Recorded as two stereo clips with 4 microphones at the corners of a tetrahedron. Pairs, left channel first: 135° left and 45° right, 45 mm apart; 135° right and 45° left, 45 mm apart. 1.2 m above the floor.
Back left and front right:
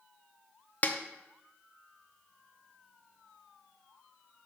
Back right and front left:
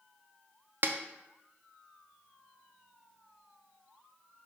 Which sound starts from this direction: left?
A snare drum, at 0.8 s.